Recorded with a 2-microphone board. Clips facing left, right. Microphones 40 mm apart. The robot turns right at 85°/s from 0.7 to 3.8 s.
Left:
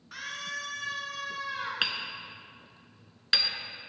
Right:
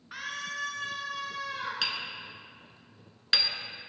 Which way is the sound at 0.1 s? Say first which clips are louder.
Right 1 dB; 15° right (ahead or behind).